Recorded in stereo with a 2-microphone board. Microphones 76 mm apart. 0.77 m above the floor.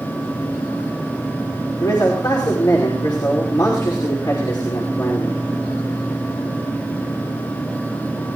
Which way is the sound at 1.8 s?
70° left (ahead or behind).